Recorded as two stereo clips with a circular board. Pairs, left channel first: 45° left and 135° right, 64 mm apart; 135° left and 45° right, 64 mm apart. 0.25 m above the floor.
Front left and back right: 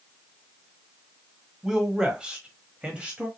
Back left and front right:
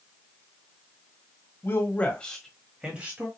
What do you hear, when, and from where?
1.6 s a man speaking: 150° left, 1.4 m; by 3.3 s 75° right, 1.3 m